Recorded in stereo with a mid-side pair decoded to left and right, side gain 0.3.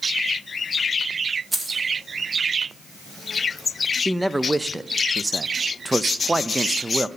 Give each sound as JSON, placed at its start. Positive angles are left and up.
{"t": 1.5, "sound": "keys jangling", "azimuth_deg": -25, "distance_m": 2.5}
{"t": 4.0, "sound": "a man speaking", "azimuth_deg": -15, "distance_m": 0.7}